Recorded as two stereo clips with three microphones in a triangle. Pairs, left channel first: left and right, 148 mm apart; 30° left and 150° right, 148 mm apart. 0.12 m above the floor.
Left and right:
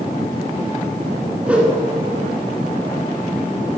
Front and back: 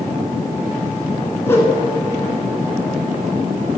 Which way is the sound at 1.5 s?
20° right.